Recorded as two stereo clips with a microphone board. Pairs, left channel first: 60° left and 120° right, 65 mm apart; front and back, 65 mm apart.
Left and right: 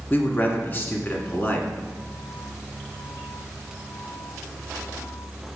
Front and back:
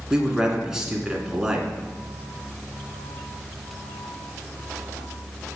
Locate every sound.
0.1 s a man speaking: 105° left, 1.4 m